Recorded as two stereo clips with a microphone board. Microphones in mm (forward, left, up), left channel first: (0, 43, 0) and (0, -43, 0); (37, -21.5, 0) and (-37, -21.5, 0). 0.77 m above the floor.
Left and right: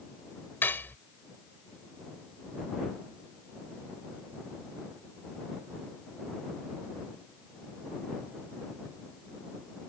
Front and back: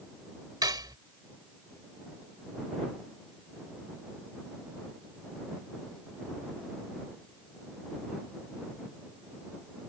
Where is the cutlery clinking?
155° left.